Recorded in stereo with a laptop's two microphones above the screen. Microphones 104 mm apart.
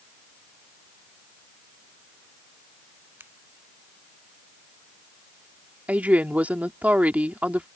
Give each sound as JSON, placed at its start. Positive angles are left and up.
{"t": 3.2, "sound": "a finger snap", "side_deg": -20}
{"t": 5.9, "sound": "a woman speaking", "side_deg": -15}